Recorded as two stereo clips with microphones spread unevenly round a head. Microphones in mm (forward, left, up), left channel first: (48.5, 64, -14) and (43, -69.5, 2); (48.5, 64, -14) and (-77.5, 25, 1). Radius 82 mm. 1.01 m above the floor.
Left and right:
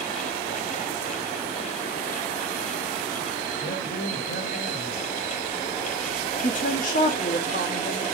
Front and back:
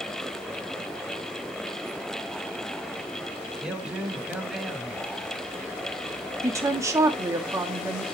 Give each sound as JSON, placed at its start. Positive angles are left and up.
{"t": 3.6, "sound": "a man speaking", "azimuth_deg": 115, "distance_m": 2.5}
{"t": 6.4, "sound": "a woman speaking", "azimuth_deg": 130, "distance_m": 1.9}